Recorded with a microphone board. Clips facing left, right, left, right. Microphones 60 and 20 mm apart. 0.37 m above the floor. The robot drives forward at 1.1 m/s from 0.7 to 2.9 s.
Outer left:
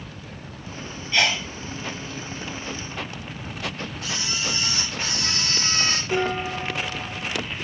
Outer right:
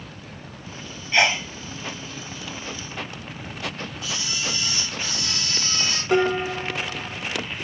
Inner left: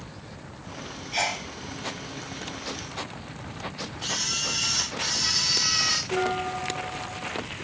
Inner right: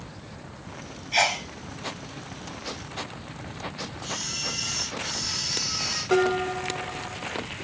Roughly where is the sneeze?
Right.